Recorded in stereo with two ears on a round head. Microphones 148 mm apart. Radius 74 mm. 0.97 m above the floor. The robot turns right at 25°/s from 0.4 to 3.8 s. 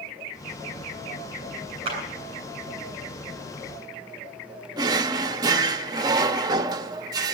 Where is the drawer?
25° right (ahead or behind), 0.6 m.